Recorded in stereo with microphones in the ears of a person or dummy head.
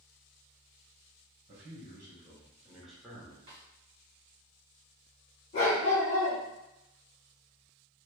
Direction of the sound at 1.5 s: 35° right (ahead or behind).